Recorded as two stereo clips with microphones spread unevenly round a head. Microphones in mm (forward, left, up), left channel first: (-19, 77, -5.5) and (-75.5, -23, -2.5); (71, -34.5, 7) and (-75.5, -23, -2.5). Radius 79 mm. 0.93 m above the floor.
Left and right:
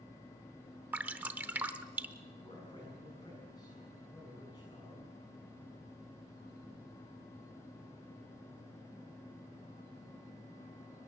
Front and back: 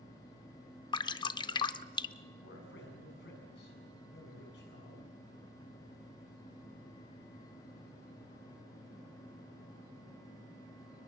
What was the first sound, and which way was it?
Dripping, 50° right.